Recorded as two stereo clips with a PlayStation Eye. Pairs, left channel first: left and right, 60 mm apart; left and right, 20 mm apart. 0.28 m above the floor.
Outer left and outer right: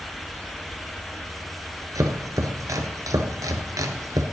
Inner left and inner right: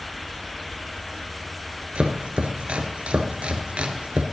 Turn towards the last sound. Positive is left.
turn(degrees=-85)